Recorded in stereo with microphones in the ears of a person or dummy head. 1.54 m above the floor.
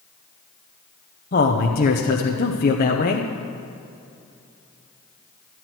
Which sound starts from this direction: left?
A man speaking, at 1.3 s.